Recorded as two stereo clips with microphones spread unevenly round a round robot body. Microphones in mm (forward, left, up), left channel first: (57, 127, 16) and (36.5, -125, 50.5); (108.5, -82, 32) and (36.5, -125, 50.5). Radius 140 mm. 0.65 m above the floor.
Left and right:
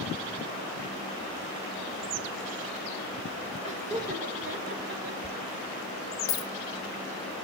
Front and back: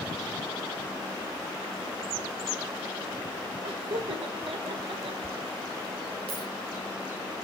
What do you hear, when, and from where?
3.6 s laughter: 165° right, 2.5 m; by 5.1 s 145° right, 2 m
5.2 s a dropped coin: 165° left, 0.8 m